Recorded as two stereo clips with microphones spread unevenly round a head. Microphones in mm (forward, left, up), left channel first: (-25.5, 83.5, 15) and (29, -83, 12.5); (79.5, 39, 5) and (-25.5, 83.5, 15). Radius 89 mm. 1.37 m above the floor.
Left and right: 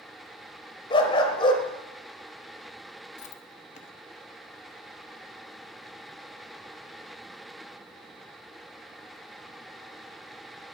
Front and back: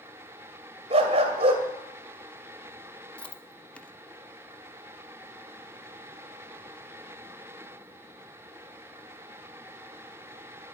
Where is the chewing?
60° left, 1.1 m.